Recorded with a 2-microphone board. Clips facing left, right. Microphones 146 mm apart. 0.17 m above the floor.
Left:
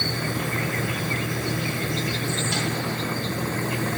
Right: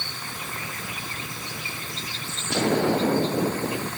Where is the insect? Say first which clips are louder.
Left 10 dB; 70° left (ahead or behind).